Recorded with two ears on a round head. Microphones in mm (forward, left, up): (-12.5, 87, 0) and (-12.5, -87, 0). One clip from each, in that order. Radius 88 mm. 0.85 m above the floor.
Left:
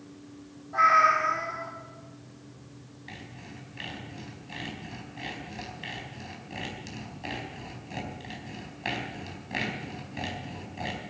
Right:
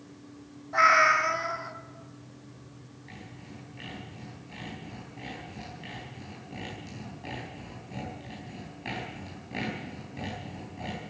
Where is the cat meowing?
50° right (ahead or behind), 1.2 m.